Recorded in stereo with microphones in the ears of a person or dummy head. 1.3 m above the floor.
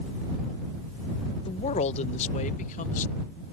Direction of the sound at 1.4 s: 30° left (ahead or behind).